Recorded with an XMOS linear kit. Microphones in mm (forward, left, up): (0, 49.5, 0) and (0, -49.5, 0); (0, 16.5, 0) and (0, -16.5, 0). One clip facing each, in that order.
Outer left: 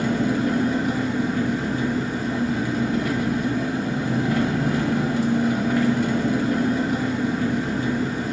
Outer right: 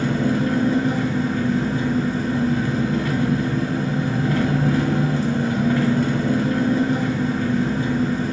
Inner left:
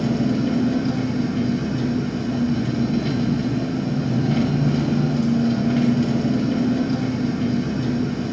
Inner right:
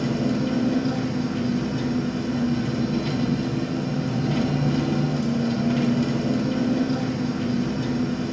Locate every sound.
0.0 s an engine running: 15° left (ahead or behind), 1.4 m